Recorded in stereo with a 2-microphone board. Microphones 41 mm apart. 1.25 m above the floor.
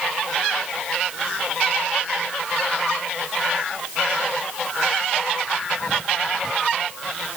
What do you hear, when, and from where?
Only background noise.